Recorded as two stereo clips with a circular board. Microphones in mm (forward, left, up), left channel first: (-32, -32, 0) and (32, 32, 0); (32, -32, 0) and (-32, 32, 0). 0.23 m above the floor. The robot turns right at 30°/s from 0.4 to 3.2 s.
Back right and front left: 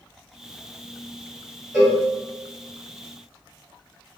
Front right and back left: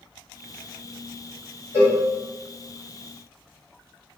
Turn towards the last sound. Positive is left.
turn(degrees=155)